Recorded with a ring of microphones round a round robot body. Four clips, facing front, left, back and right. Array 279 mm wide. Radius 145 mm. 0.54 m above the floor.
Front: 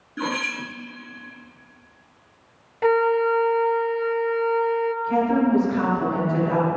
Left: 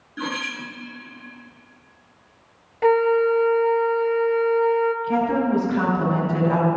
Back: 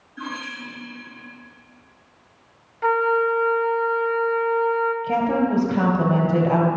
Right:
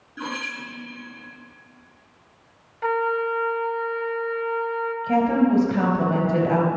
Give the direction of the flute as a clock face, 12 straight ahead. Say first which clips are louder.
Left 6 dB, front 1 dB; 10 o'clock.